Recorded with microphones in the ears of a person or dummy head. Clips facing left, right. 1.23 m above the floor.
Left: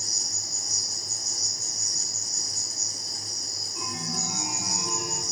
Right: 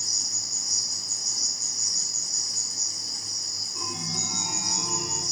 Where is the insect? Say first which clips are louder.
Left 2 dB; 65° right (ahead or behind), 2 m.